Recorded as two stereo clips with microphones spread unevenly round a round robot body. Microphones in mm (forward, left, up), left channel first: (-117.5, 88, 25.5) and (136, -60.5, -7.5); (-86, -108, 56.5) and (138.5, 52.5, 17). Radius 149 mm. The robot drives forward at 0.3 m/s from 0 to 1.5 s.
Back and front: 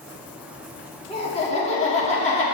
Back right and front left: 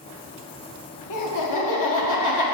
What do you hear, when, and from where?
1.1 s laughter: 135° right, 1.3 m; by 2.4 s 140° right, 1.4 m